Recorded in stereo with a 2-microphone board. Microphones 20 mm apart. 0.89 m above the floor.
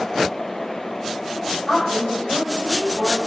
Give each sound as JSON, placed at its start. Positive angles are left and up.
{"t": 1.7, "sound": "a woman speaking", "side_deg": 40, "distance_m": 3.5}